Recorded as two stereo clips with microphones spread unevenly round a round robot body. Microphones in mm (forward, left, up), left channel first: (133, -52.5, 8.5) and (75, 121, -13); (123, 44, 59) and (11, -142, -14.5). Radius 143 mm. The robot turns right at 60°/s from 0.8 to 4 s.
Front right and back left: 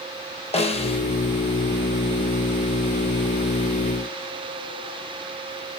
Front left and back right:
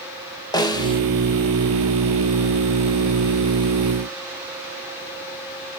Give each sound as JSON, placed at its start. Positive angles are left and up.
{"t": 0.5, "sound": "a snare drum", "azimuth_deg": -30, "distance_m": 1.3}